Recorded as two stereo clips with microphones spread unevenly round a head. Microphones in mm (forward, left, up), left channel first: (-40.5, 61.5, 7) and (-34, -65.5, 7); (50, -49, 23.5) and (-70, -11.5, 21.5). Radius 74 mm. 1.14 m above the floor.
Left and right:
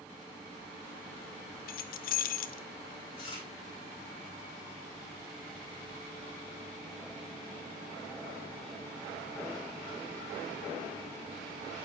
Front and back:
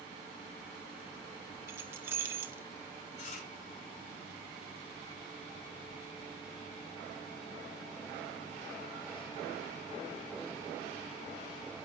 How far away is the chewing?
About 9 m.